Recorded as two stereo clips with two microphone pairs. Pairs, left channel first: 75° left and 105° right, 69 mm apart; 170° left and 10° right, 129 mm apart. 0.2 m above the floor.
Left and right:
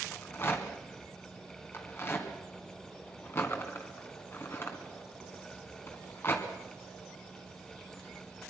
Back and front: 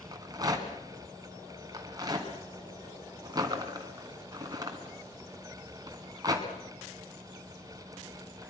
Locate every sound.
0.1 s a rattle: 35° left, 2.5 m